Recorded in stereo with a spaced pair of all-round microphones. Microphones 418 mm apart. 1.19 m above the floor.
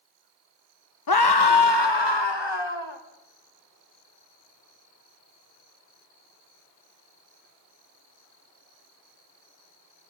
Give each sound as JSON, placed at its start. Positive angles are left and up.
{"t": 1.1, "sound": "a scream", "side_deg": 55, "distance_m": 0.8}